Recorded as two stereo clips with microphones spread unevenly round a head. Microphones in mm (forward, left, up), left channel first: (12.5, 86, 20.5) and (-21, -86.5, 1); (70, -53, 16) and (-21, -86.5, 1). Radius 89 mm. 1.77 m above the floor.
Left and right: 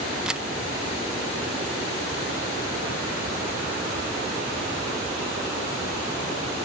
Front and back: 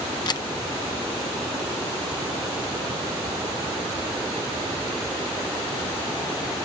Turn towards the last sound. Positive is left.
turn(degrees=-15)